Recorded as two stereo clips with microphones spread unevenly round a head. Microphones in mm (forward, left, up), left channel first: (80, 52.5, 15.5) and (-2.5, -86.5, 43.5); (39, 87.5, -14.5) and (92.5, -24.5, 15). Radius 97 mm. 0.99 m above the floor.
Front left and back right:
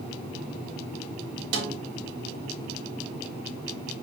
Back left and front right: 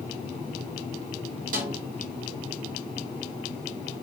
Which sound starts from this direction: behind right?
A snare drum, at 1.5 s.